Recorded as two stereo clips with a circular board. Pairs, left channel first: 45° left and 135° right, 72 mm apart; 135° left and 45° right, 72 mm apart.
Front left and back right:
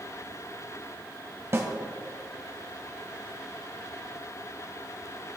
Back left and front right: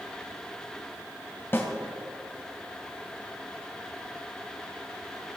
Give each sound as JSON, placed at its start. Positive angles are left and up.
{"t": 1.5, "sound": "a snare drum", "azimuth_deg": -170, "distance_m": 1.6}